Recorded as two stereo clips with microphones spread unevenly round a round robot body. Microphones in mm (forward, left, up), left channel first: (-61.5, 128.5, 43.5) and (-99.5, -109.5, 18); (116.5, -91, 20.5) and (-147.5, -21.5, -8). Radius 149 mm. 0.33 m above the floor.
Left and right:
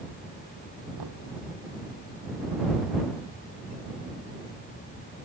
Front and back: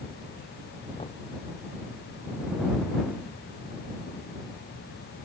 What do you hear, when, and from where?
1.0 s knocking: 85° right